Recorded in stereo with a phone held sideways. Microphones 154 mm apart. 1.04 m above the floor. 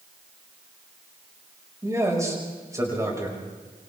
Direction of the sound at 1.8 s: 20° right (ahead or behind).